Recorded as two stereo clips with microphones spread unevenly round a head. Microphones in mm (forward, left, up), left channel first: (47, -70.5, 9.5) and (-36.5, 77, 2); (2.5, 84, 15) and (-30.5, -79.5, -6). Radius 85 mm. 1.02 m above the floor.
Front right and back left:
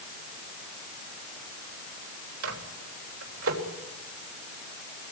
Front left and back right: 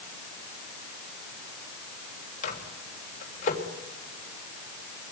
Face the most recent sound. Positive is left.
turn(degrees=125)